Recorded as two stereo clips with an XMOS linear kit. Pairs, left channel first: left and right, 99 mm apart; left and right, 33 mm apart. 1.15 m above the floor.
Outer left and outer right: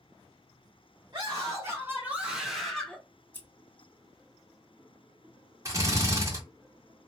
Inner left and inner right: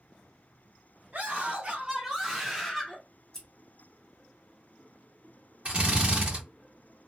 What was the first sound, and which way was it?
A scream, 45° right (ahead or behind).